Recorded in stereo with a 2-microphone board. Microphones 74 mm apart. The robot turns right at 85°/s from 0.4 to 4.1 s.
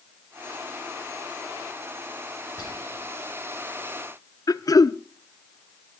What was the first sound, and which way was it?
Whispering, 40° left.